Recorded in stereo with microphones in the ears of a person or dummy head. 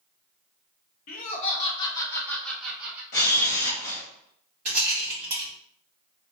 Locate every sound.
1.1 s laughter: 45° left (ahead or behind), 1.1 m; by 3.0 s 10° right (ahead or behind), 1.1 m
3.1 s a camera shutter: 40° left (ahead or behind), 1.5 m
4.7 s a rattle: 10° right (ahead or behind), 2 m